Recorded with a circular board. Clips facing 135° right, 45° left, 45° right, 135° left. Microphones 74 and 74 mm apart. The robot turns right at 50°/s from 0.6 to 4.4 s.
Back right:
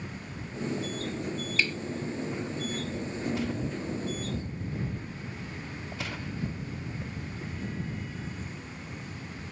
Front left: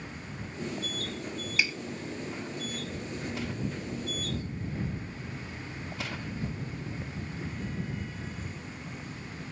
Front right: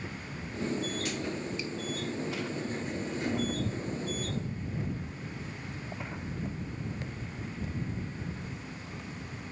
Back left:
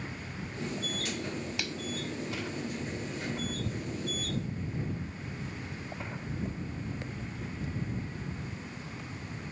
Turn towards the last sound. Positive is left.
turn(degrees=-100)